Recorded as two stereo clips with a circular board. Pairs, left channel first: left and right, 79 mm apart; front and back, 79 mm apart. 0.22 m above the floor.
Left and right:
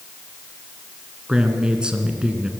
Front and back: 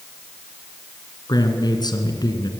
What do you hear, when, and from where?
1.3 s a man speaking: 15° right, 2.5 m